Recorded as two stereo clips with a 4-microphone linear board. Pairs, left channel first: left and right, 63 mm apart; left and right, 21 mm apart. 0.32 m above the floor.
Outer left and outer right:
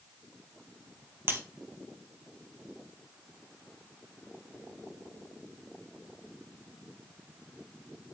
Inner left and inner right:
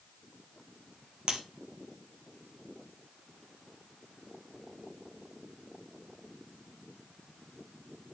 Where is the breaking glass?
40° right (ahead or behind), 1.8 m.